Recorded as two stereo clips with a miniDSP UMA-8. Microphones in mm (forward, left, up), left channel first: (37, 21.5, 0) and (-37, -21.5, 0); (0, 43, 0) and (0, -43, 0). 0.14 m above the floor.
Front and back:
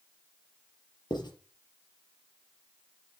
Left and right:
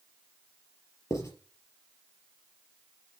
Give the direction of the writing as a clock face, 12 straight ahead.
11 o'clock.